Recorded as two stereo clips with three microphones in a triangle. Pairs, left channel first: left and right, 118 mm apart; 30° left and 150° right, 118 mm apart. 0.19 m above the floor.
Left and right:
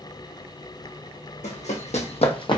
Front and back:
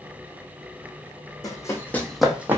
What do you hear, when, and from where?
1.4 s running footsteps: 85° left, 0.7 m; by 2.6 s 140° left, 0.5 m